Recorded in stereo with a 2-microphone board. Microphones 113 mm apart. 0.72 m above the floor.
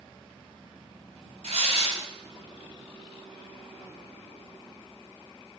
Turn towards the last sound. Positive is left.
turn(degrees=-70)  # may be behind; listen again after turning